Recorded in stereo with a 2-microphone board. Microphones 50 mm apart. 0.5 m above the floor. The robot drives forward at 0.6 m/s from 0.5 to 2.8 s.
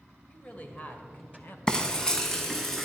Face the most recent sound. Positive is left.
turn(degrees=10)  # may be behind; listen again after turning